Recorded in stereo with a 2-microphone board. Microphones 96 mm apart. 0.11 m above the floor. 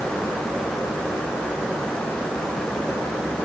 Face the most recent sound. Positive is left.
No sound to turn to.